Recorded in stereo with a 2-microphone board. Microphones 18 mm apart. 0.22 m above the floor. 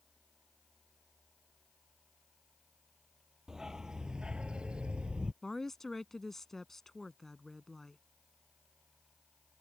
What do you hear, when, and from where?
3.5 s a dog barking: 25° right (ahead or behind); by 5.3 s 70° right (ahead or behind)
5.4 s a woman speaking: 25° left (ahead or behind)